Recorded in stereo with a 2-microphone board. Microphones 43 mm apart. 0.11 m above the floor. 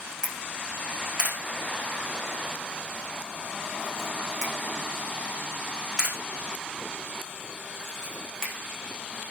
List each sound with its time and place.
0.2 s a camera shutter: 20° right (ahead or behind), 8 m